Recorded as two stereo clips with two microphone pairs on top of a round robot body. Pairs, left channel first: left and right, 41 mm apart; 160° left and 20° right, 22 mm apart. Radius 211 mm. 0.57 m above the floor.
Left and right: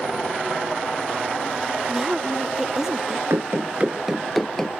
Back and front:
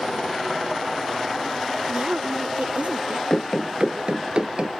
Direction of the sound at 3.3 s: 105° right.